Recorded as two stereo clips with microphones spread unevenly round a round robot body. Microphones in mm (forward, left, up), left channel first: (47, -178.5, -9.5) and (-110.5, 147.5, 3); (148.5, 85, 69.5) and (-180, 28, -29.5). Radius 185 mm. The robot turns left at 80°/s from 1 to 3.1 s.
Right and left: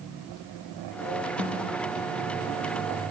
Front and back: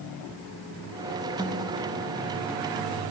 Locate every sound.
1.4 s a snare drum: 120° left, 6 m; by 1.7 s 95° left, 6 m